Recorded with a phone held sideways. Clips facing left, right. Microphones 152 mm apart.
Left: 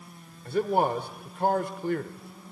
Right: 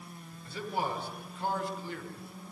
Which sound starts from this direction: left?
A man speaking, at 0.5 s.